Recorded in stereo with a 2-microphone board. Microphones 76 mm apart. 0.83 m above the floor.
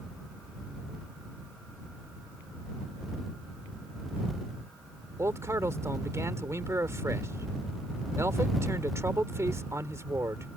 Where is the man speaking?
40° right (ahead or behind).